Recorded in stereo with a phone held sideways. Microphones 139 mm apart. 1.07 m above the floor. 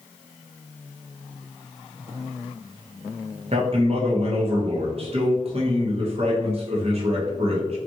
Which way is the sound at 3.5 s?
45° right (ahead or behind).